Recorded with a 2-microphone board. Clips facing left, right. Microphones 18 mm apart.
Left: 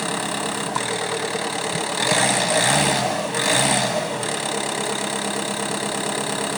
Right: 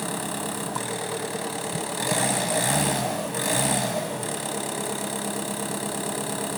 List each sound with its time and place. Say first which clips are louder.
0.0 s an engine running: left 5 dB; 40° left (ahead or behind), 1.3 m